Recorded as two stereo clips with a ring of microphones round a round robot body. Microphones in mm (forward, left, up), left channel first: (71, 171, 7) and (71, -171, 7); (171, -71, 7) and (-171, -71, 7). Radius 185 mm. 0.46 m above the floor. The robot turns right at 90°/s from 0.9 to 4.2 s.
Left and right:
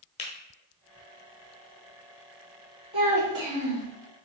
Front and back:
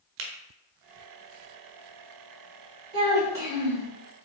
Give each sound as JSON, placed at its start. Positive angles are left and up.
{"t": 0.2, "sound": "a finger snap", "azimuth_deg": 155, "distance_m": 0.7}
{"t": 2.9, "sound": "a child speaking", "azimuth_deg": -165, "distance_m": 2.0}